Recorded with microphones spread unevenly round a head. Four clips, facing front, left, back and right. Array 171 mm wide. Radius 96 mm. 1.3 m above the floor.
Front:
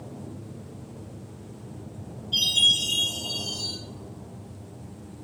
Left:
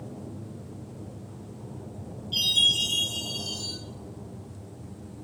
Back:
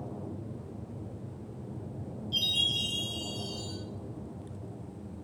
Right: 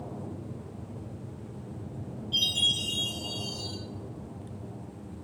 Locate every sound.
2.3 s a chime: 145° left, 3.5 m